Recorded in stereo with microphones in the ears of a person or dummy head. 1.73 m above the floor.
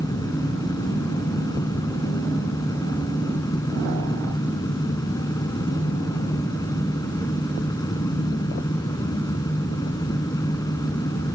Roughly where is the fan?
Centre.